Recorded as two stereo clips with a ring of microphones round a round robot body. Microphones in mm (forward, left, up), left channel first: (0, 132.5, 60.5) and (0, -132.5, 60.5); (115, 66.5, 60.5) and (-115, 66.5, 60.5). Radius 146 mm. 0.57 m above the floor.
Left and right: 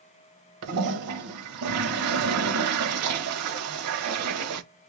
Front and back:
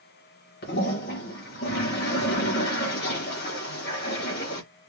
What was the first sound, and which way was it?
A toilet flushing, 55° right.